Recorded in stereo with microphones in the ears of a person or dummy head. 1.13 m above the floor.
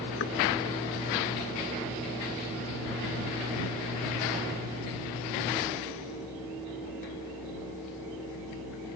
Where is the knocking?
60° left (ahead or behind).